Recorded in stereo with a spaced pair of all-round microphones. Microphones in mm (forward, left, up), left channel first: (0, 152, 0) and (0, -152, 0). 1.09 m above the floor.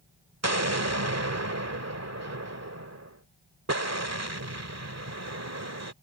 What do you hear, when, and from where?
0.4 s an explosion: 55° right (ahead or behind)